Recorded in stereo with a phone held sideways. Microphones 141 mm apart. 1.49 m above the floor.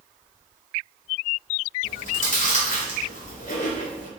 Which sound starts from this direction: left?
Chewing, at 1.8 s.